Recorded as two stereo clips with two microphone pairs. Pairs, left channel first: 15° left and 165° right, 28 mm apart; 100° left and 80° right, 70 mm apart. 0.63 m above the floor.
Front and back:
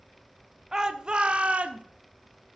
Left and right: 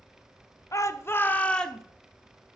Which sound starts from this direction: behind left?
A shout, at 0.7 s.